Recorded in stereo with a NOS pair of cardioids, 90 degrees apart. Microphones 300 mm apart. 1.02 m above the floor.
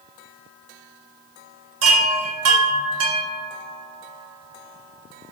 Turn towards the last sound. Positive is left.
turn(degrees=-60)